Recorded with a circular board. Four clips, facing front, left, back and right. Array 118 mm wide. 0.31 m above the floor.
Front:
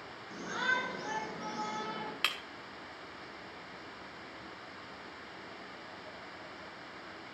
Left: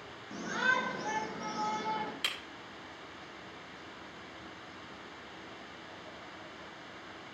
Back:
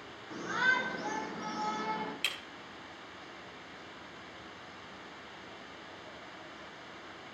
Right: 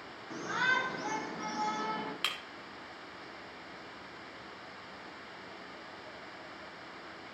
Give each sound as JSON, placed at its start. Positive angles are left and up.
{"t": 0.3, "sound": "a shout", "azimuth_deg": -115, "distance_m": 3.5}
{"t": 2.2, "sound": "breaking glass", "azimuth_deg": -20, "distance_m": 1.1}